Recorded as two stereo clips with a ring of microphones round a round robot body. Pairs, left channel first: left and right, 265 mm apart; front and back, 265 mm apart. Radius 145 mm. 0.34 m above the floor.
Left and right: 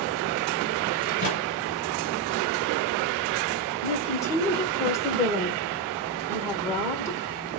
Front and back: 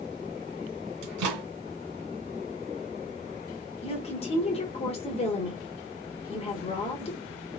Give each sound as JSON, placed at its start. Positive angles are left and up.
{"t": 1.0, "sound": "a microwave", "azimuth_deg": 150, "distance_m": 2.5}
{"t": 3.8, "sound": "a woman speaking", "azimuth_deg": 25, "distance_m": 1.3}